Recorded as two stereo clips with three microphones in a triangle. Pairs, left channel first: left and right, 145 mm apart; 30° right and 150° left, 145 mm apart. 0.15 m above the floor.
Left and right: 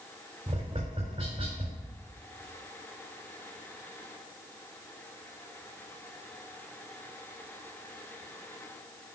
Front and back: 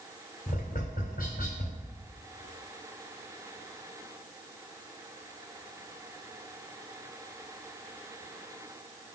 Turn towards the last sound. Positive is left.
turn(degrees=-45)